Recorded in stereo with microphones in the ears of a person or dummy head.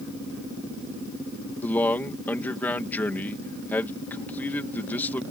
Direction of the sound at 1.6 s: 10° left (ahead or behind).